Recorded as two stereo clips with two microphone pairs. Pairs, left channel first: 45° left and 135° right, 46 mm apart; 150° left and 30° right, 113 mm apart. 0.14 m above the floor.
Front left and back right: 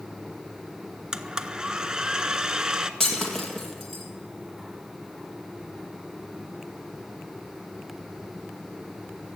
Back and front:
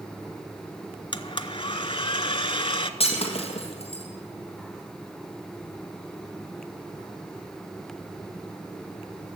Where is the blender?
155° left, 0.7 m.